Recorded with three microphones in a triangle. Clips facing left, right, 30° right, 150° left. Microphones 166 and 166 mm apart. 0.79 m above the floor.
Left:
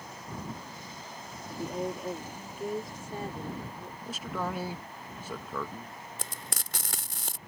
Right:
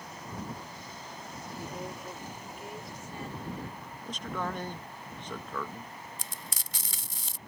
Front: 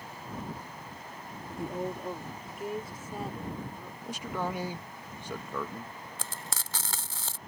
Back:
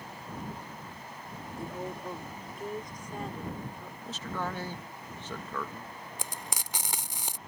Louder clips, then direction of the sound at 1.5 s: Left 7 dB, front 4 dB; 35° left.